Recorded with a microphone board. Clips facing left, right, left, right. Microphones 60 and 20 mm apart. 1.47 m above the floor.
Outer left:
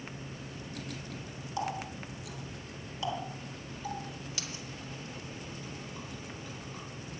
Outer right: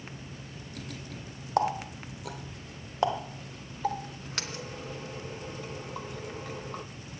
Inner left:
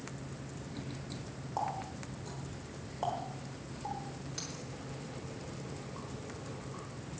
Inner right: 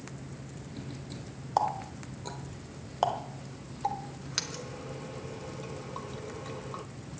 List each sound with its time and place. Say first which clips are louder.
1.6 s a running tap: outer right 8 dB, inner right 8 dB; 55° right (ahead or behind), 0.9 m